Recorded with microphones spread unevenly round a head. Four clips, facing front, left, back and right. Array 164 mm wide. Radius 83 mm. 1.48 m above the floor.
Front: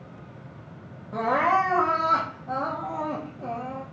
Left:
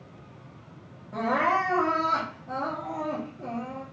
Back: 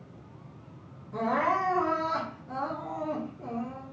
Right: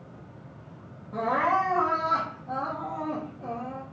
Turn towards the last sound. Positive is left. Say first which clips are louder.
# even, front 5 dB
turn(degrees=5)